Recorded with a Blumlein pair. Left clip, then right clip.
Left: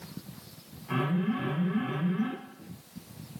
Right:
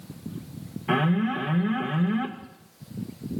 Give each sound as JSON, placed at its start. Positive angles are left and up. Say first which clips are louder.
{"t": 0.9, "sound": "an alarm", "louder": "right 6 dB", "azimuth_deg": -50, "distance_m": 2.5}